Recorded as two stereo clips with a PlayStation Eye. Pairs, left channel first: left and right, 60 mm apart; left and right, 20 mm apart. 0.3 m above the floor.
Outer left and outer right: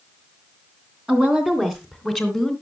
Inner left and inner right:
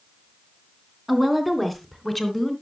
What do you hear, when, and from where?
1.1 s a woman speaking: 15° right (ahead or behind), 3 m; by 2.5 s centre (ahead or behind), 2.5 m